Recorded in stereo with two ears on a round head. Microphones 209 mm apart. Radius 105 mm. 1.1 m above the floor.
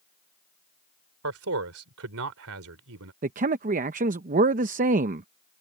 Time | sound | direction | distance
1.2 | a man speaking | 65° right (ahead or behind) | ?
3.2 | a man speaking | 35° right (ahead or behind) | ?